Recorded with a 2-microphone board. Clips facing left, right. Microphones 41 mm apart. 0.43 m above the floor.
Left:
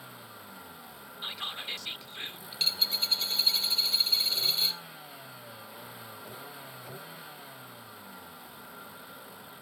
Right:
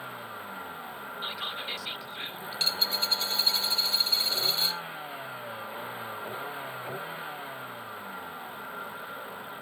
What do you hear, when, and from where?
0.0 s a vehicle: 35° right (ahead or behind)
1.2 s whispering: 5° right (ahead or behind)
2.5 s a dropped coin: centre (ahead or behind)